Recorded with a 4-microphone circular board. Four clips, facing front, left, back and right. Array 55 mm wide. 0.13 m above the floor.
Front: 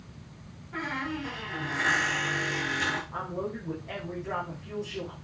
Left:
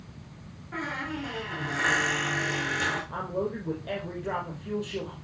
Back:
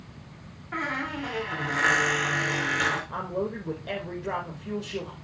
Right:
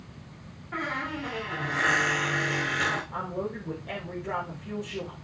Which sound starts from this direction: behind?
A squeak, at 0.7 s.